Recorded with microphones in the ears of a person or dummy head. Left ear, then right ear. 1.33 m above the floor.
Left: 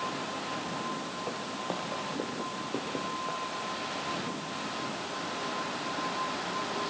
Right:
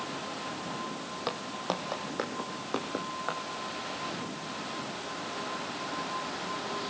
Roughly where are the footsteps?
Right.